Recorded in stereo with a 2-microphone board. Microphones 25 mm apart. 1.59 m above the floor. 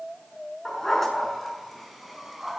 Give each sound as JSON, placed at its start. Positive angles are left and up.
{"t": 0.7, "sound": "a dog barking", "side_deg": 10, "distance_m": 7.0}